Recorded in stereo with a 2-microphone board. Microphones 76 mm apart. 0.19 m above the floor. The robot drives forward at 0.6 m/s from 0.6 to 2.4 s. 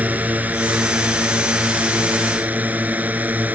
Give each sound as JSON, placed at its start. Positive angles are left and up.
{"t": 0.0, "sound": "a drone", "side_deg": -20}